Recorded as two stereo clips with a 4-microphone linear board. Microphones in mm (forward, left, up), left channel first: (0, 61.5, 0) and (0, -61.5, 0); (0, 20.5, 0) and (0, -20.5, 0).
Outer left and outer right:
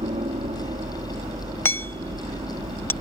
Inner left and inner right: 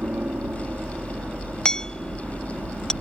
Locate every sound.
0.0 s a helicopter: 60° right (ahead or behind); by 3.0 s 55° right (ahead or behind)
1.6 s hammering: 20° left (ahead or behind)